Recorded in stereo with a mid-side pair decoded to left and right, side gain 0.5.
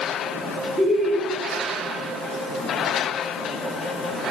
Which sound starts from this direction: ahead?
Laughter, at 0.8 s.